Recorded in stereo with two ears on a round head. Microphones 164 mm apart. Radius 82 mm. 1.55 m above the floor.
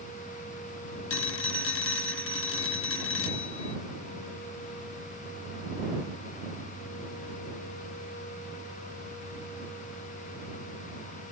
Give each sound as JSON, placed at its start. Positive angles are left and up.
{"t": 1.1, "sound": "a phone ringing", "side_deg": 80}